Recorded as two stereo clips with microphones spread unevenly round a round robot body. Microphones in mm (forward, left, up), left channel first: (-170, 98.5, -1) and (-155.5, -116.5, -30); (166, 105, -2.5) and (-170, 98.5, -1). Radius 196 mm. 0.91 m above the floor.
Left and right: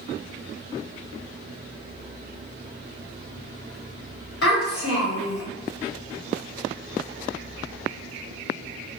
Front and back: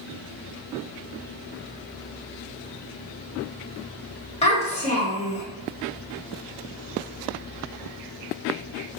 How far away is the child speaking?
About 1.3 m.